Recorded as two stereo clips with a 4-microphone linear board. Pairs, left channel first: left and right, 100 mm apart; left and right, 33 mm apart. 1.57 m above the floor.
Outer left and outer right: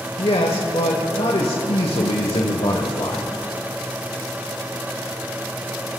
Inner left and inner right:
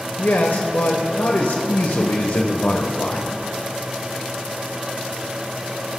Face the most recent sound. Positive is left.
turn(degrees=80)